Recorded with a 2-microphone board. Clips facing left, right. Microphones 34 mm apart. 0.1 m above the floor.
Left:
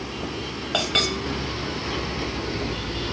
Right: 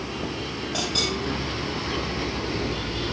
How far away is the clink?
About 7.5 m.